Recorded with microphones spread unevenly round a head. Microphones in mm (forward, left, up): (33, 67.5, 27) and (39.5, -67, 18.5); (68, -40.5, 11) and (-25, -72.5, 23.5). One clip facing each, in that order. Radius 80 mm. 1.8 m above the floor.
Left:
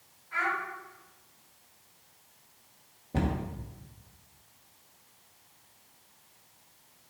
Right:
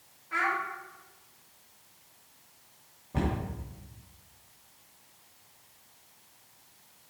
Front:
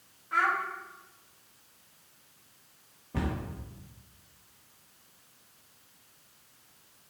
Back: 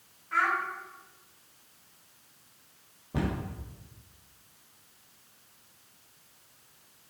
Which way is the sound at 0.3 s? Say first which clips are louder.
Right 1 dB, even; 55° right.